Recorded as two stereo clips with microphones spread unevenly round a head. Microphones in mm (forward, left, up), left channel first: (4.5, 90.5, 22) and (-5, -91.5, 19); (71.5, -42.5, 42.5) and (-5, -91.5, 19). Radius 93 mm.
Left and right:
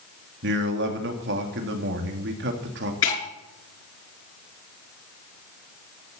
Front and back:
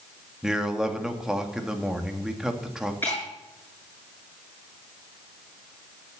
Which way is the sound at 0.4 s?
60° right.